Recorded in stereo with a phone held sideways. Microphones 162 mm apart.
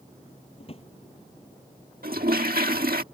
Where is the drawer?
40° left (ahead or behind).